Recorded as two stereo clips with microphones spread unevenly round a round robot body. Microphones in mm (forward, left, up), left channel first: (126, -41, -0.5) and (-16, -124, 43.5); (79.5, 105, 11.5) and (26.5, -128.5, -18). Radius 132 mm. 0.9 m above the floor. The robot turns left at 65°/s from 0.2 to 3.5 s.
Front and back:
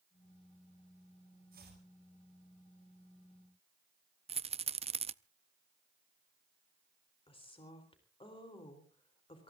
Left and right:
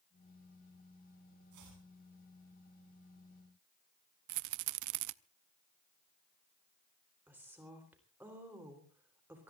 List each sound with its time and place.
1.5 s chopping: 120° right, 8.5 m; by 1.8 s 140° right, 8.5 m
4.3 s a rattle: 95° right, 0.6 m
7.3 s a woman speaking: 25° right, 3.5 m